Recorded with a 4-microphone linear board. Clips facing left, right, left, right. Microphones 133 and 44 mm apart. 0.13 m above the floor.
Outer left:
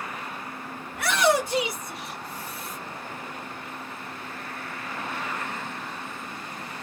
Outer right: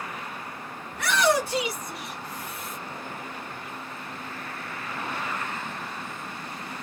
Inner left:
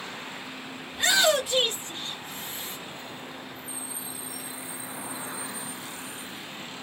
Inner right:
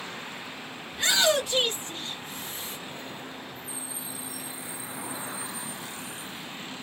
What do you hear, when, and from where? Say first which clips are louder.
0.9 s a shout: outer left 1 dB, inner left 1 dB; 5° left (ahead or behind), 1.3 m; by 2.8 s 35° left (ahead or behind), 2.0 m